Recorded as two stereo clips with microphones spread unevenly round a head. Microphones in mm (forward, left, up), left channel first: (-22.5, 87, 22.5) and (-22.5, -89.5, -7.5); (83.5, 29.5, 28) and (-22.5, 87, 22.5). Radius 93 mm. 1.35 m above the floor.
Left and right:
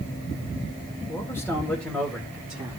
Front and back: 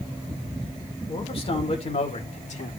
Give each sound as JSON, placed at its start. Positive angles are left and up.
{"t": 1.1, "sound": "a man speaking", "azimuth_deg": 15, "distance_m": 2.5}